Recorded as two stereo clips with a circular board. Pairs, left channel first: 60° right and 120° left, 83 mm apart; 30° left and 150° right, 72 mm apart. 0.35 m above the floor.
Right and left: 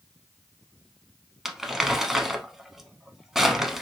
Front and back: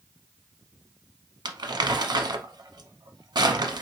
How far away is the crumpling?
About 0.5 m.